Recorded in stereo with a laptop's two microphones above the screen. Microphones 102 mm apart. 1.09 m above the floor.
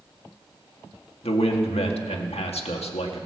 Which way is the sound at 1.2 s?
85° left.